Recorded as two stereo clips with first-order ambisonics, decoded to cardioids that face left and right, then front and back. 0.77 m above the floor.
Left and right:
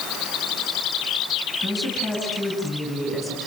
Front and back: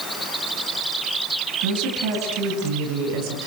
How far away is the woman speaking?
About 8 m.